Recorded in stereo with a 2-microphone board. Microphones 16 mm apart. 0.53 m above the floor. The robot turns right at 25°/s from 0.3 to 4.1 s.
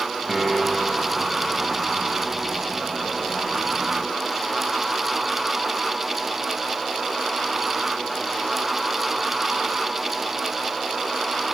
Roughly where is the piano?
Centre.